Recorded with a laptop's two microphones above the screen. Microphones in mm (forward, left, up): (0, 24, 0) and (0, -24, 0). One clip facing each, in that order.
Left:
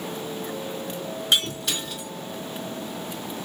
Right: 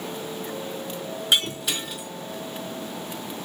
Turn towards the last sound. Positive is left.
turn(degrees=-5)  # may be behind; listen again after turning